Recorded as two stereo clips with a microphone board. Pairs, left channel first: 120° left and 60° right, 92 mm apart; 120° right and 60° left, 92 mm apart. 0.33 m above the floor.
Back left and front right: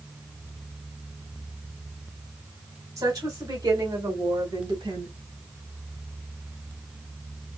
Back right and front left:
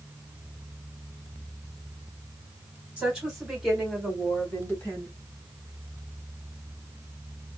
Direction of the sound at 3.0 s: 20° right.